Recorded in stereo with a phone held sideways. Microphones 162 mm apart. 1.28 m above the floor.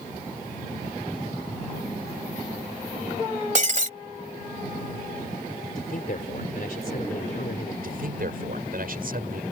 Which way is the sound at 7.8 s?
65° right (ahead or behind).